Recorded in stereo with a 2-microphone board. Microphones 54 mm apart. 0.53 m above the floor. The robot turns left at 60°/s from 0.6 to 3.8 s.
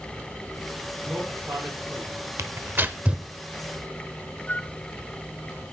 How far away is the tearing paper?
About 0.7 m.